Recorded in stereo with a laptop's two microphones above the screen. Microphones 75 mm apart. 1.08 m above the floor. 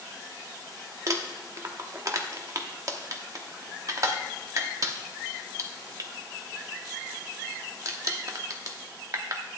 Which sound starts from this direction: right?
Crumpling, at 1.1 s.